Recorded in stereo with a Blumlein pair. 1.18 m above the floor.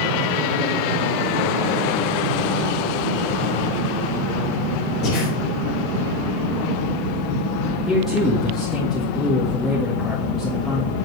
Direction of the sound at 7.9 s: 5° left.